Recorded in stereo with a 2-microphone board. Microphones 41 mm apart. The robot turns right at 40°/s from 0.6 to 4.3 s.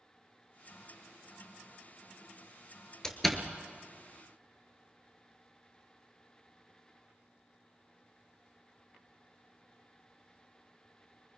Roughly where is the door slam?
Centre.